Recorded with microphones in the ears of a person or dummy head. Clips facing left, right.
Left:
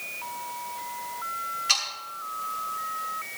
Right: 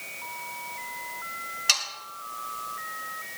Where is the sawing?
55° right (ahead or behind), 3.5 m.